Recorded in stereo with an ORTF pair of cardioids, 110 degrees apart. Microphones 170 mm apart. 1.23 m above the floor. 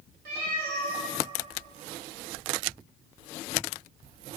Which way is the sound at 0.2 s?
65° right.